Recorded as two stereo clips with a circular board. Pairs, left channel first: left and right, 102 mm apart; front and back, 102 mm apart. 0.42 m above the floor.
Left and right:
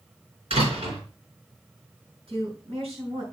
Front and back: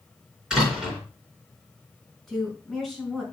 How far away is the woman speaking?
About 4 m.